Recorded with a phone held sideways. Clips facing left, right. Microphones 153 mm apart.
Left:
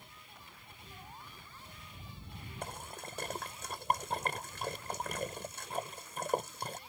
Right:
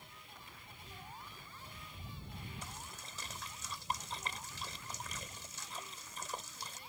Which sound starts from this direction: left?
A splash, at 2.6 s.